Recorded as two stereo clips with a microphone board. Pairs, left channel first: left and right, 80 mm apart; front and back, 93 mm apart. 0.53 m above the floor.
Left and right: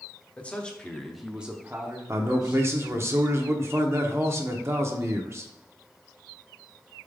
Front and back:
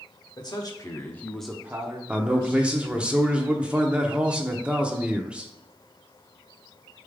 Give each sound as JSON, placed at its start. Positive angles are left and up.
{"t": 0.4, "sound": "a man speaking", "azimuth_deg": 20, "distance_m": 1.0}
{"t": 2.1, "sound": "a man speaking", "azimuth_deg": -110, "distance_m": 0.7}